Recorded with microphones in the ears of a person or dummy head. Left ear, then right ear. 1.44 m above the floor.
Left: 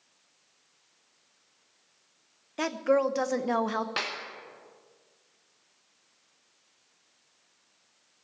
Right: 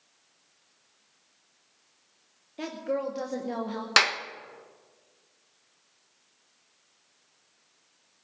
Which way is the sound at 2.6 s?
50° left (ahead or behind).